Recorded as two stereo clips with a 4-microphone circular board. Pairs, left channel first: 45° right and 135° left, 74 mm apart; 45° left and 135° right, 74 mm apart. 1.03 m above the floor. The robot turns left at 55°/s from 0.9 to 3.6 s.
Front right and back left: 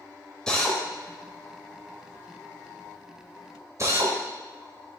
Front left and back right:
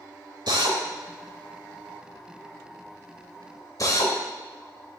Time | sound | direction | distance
0.5 | a drill | 125° right | 1.9 m